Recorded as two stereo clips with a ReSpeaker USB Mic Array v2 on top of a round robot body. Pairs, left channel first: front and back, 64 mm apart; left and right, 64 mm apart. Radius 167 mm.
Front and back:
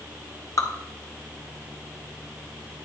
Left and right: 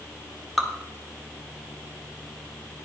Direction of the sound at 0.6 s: Straight ahead.